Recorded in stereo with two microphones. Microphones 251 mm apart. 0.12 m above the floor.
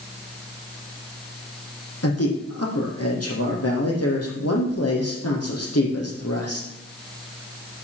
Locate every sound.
2.0 s a man speaking: 75° left (ahead or behind), 5 m